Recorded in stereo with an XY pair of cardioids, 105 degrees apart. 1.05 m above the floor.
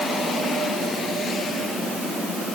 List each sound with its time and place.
Only background noise.